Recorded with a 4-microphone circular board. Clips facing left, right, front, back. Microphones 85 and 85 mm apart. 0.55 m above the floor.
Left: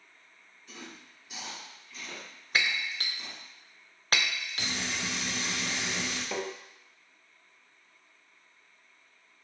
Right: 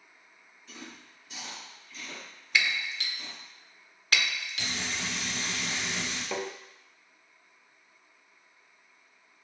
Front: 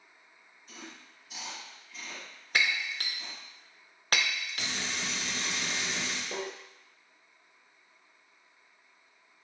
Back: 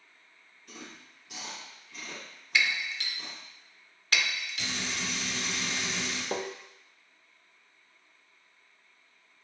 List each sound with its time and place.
0.7 s chewing: 170° left, 2.5 m
2.5 s breaking glass: 40° left, 0.6 m
4.6 s frying: 30° left, 1.4 m
6.3 s tapping: 170° right, 0.5 m